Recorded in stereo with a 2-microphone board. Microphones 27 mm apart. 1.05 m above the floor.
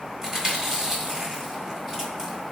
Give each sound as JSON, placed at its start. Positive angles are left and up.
{"t": 0.2, "sound": "chewing", "side_deg": -20, "distance_m": 1.8}